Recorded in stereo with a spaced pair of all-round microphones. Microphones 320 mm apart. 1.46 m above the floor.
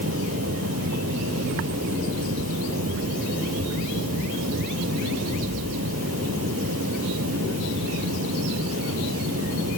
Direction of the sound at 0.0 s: 50° right (ahead or behind).